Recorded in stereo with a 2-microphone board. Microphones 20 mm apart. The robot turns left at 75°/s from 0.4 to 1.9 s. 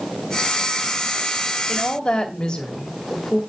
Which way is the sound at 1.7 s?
35° left (ahead or behind).